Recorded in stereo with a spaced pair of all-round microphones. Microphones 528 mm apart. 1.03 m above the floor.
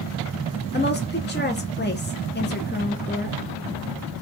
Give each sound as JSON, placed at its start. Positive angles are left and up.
{"t": 0.7, "sound": "a woman speaking", "side_deg": 20, "distance_m": 0.6}